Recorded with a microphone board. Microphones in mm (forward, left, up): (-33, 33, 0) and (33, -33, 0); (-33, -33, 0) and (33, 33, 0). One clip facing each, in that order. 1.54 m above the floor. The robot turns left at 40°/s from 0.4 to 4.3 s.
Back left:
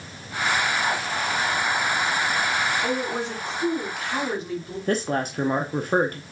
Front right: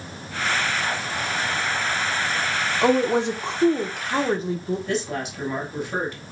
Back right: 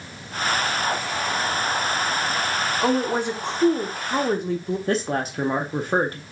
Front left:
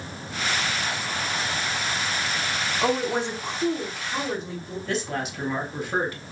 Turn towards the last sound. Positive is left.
turn(degrees=175)